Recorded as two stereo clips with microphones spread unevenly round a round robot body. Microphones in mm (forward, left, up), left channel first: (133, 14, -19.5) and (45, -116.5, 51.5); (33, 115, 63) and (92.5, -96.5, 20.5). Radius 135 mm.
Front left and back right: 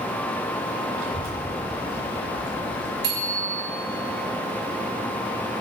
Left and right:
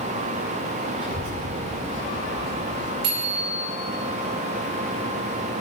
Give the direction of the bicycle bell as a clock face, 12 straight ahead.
4 o'clock.